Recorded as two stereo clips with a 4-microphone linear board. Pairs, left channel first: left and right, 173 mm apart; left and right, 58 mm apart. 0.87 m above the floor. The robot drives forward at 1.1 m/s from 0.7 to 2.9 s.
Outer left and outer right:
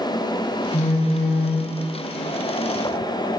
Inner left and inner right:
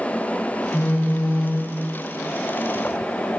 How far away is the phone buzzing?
About 2 m.